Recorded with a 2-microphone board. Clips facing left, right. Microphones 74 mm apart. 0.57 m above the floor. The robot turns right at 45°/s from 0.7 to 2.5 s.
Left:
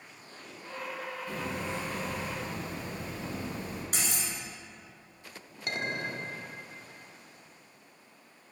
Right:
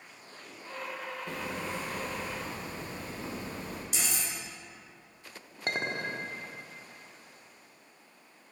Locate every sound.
1.3 s hammering: 95° right, 2 m; by 3.8 s 40° right, 2 m
3.9 s cutlery clinking: 45° left (ahead or behind), 2.5 m
5.7 s a clink: 35° right (ahead or behind), 0.7 m